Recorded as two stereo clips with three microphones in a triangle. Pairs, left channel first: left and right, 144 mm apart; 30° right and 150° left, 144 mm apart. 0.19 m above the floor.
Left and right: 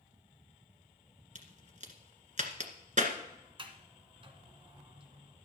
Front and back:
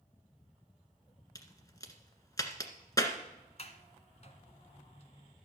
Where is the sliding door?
50° right, 1.6 m.